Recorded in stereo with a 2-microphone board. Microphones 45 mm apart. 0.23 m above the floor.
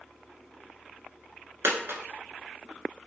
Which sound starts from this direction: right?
A dropped coin, at 1.6 s.